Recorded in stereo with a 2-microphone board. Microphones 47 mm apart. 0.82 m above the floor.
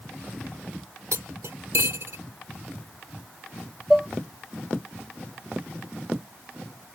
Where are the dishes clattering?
5° right (ahead or behind).